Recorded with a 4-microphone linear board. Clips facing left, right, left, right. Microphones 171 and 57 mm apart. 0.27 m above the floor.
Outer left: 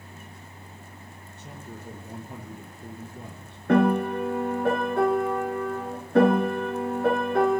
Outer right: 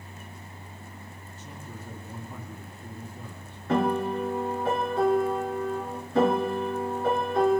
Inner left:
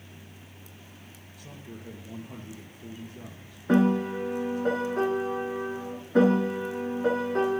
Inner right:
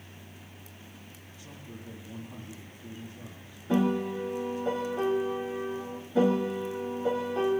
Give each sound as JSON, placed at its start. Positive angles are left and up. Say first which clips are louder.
{"t": 1.4, "sound": "a man speaking", "louder": "outer left 2 dB, inner left 2 dB", "side_deg": 70, "distance_m": 5.5}
{"t": 3.7, "sound": "a piano", "louder": "outer left 4 dB, inner left 4 dB", "side_deg": 65, "distance_m": 3.0}